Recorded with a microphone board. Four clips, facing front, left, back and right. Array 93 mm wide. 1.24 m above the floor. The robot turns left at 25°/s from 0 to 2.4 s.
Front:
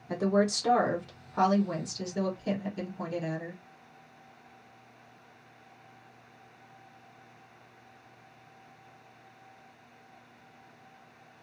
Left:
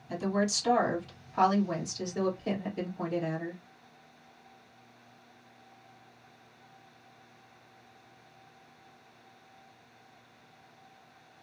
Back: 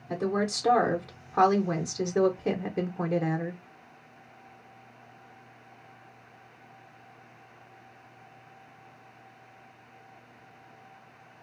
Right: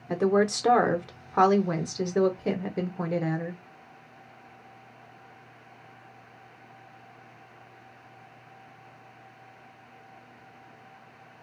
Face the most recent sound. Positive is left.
turn(degrees=-140)